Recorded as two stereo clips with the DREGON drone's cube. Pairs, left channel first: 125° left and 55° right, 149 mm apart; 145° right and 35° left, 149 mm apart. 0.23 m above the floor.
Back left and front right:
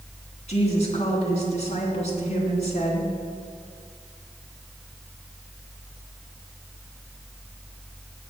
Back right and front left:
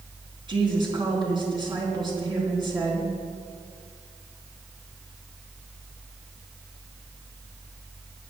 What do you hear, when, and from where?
0.5 s a woman speaking: 90° left, 3 m